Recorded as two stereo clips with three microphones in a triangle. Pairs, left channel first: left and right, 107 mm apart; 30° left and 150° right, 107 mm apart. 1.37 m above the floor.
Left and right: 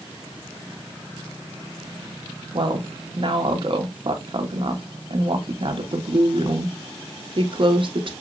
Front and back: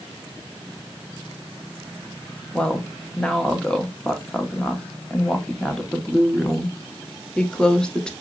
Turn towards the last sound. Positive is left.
turn(degrees=-50)